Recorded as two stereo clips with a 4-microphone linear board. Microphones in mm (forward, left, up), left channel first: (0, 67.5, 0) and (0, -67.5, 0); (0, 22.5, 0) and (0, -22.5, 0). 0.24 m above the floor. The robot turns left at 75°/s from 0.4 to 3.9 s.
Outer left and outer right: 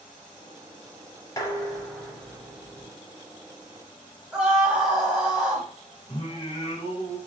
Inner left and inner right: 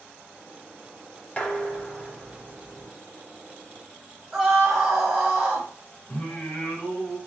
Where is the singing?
40° left (ahead or behind), 1.5 m.